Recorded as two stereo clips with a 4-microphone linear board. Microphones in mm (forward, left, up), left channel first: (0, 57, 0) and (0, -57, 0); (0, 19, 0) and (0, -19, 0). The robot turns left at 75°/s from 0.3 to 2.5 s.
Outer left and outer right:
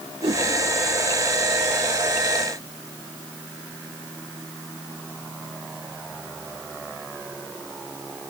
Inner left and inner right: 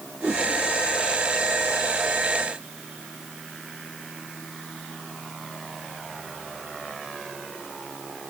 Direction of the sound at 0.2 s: 45° right (ahead or behind).